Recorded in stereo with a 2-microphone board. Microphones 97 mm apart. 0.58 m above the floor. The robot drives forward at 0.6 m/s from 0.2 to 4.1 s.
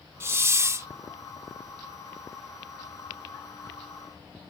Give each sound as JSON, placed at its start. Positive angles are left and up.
{"t": 0.2, "sound": "a hiss", "side_deg": -30}